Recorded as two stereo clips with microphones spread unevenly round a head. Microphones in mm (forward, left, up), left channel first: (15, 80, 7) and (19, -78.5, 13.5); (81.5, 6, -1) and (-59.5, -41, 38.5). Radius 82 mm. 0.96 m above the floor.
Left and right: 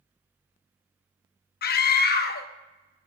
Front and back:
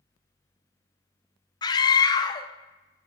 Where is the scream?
75° left, 0.8 m.